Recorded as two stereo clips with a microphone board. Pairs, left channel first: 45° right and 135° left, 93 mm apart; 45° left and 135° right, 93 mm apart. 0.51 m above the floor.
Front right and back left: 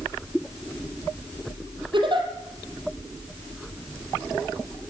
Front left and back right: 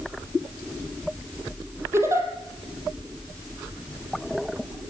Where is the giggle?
165° left, 4 m.